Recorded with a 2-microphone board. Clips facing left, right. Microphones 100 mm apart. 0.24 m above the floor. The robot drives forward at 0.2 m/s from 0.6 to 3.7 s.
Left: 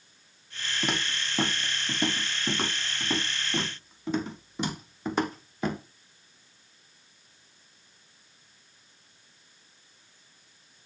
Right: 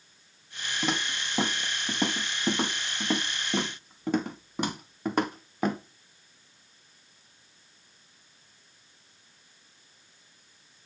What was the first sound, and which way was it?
Footsteps, 90° right.